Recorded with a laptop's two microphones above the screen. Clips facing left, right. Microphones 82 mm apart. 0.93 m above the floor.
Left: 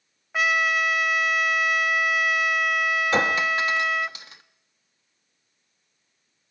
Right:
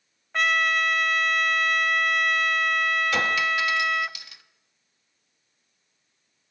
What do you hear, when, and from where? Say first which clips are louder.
0.3 s a trumpet: left 1 dB; 5° left (ahead or behind), 0.7 m
3.1 s a clink: left 2 dB; 35° left (ahead or behind), 0.8 m